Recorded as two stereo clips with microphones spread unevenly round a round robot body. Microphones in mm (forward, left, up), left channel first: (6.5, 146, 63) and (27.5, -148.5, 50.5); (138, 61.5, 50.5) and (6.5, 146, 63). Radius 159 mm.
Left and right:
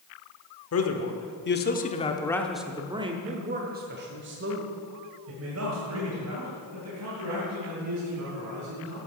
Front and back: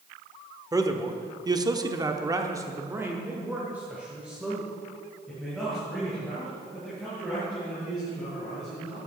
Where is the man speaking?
80° left, 1.3 m; by 9.0 s 120° right, 4 m.